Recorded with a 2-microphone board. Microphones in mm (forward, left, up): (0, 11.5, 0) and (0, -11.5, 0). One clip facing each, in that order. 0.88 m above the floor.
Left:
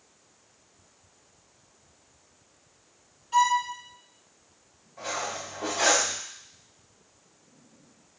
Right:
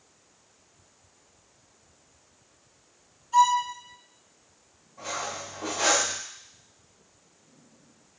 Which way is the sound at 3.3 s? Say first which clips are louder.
Right 2 dB; 75° left (ahead or behind).